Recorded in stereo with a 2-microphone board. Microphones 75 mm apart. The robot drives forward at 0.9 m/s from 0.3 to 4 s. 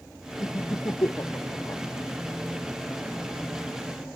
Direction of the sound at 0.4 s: 50° left (ahead or behind).